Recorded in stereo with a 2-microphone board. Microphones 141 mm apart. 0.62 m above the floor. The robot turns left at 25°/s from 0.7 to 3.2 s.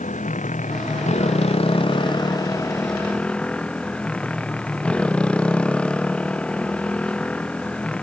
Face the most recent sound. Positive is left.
turn(degrees=10)